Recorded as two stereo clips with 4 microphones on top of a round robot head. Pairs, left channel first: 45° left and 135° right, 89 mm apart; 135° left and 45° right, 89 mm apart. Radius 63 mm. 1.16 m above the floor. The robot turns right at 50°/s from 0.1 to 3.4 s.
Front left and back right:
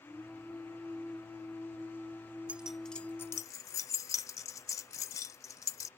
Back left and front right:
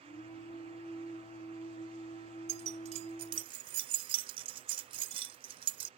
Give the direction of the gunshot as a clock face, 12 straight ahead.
No gunshot in this recording.